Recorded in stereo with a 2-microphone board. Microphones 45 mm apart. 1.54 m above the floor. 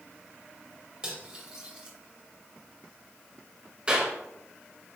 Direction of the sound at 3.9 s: 20° right (ahead or behind).